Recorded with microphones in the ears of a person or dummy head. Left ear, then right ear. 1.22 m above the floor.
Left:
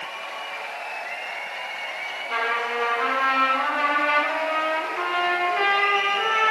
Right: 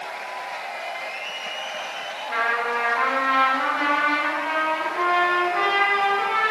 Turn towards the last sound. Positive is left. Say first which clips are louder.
# right 2 dB
turn(degrees=5)  # may be behind; listen again after turning